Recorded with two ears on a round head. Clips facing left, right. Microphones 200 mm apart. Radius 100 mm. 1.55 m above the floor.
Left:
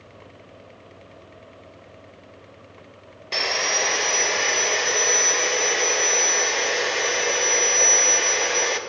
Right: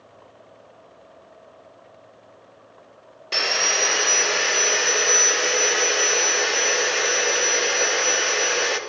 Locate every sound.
3.3 s sawing: 5° right (ahead or behind), 0.6 m